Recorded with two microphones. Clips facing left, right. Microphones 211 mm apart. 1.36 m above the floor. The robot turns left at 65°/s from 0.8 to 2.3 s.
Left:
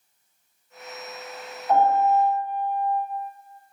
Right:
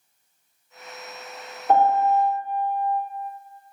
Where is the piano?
80° right, 1.4 m; by 3.0 s 120° right, 1.4 m.